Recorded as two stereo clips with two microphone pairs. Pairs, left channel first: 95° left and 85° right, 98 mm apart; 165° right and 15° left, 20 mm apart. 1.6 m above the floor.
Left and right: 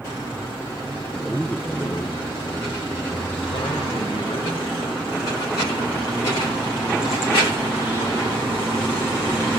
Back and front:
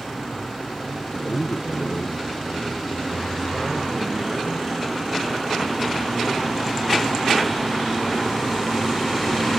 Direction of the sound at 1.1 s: 175° right.